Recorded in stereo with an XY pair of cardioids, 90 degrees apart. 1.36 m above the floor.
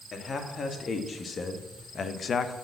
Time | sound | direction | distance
0.1 | a man speaking | 45° left | 2.5 m